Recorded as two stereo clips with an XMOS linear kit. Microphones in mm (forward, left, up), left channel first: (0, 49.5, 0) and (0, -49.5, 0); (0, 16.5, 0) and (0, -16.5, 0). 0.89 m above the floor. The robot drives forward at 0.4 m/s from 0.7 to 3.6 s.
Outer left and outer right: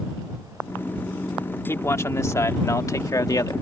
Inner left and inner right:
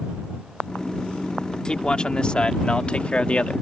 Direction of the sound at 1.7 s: 25° left (ahead or behind).